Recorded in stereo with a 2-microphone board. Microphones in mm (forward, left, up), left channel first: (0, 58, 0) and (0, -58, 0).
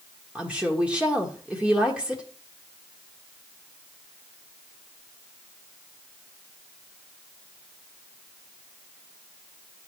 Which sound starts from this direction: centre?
A woman speaking, at 0.3 s.